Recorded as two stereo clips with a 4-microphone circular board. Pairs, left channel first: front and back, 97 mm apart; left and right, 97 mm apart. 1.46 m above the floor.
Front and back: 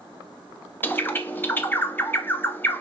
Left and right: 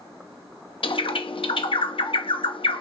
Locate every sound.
0.8 s a bird: 70° left, 0.6 m